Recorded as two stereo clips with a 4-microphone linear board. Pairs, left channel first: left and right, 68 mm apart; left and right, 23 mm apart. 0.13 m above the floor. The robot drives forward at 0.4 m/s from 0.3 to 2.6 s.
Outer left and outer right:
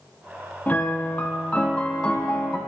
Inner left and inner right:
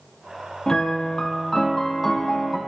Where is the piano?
25° left (ahead or behind), 1.1 m; by 2.6 s 15° left (ahead or behind), 1.8 m.